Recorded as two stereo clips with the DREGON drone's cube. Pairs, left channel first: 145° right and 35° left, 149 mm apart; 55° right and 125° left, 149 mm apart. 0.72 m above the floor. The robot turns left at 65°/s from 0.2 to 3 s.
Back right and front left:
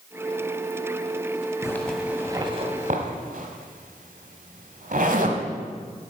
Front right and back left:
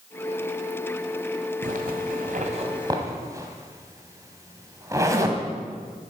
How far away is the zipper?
About 1.5 m.